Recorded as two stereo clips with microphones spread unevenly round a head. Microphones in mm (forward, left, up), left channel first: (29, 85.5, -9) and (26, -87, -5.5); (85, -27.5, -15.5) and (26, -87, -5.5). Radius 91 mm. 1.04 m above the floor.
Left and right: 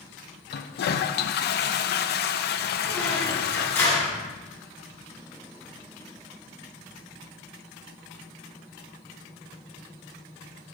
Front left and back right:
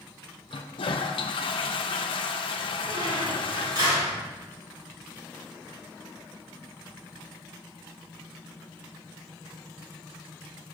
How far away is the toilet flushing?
About 0.6 m.